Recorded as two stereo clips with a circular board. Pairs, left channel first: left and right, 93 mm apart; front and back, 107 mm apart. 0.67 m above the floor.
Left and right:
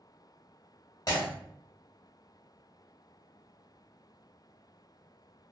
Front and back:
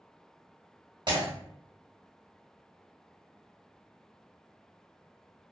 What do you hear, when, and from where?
1.1 s breaking glass: 135° left, 1.3 m